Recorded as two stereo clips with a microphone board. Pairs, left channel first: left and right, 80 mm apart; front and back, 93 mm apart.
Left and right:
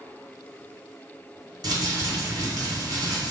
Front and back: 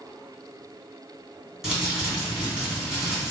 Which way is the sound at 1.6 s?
95° right.